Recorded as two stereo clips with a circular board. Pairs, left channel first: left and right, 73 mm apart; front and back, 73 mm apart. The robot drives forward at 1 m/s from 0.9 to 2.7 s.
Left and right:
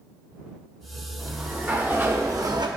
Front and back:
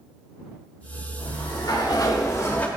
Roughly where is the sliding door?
Ahead.